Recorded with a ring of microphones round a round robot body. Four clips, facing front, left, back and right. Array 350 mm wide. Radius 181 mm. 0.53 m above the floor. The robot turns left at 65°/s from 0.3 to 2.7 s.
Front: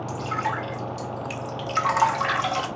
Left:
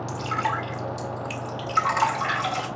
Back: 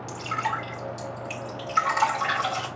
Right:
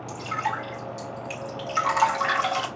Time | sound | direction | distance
0.1 | dripping | 90° left | 1.6 m